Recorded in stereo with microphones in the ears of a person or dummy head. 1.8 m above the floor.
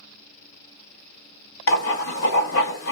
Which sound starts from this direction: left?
Writing, at 1.7 s.